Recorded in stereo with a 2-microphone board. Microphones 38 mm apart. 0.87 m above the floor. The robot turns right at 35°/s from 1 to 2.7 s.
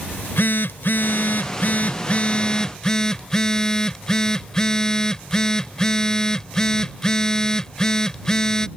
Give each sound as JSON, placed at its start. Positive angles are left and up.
{"t": 0.1, "sound": "a phone buzzing", "azimuth_deg": 105}